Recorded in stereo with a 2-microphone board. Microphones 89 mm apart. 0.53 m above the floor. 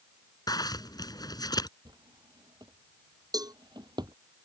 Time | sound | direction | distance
0.5 | a zipper | 50° left (ahead or behind) | ?
1.9 | a drawer | 55° right (ahead or behind) | ?
3.3 | a cowbell | 45° right (ahead or behind) | ?